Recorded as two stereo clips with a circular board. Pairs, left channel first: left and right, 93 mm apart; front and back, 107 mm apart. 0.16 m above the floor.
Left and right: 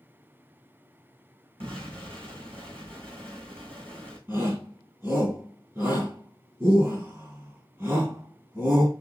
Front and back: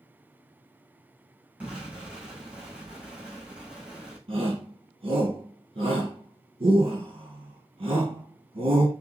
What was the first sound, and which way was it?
An explosion, 105° right.